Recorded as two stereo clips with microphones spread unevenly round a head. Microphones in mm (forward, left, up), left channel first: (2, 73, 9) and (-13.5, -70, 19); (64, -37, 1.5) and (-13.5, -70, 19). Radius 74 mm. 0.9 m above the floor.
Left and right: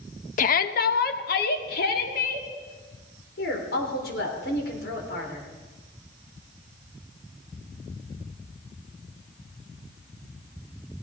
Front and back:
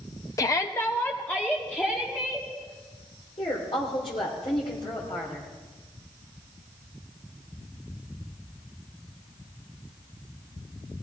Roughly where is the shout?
Ahead left.